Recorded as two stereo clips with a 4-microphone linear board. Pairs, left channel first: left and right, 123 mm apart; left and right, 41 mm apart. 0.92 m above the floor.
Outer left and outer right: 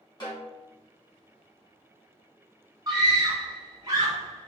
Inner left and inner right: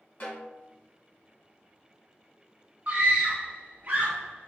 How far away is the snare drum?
About 1.9 m.